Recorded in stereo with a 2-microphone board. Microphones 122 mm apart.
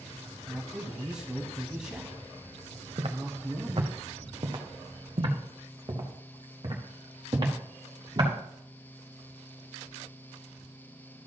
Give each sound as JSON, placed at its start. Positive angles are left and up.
{"t": 0.5, "sound": "a man speaking", "side_deg": -5, "distance_m": 1.0}
{"t": 3.0, "sound": "footsteps", "side_deg": -50, "distance_m": 1.3}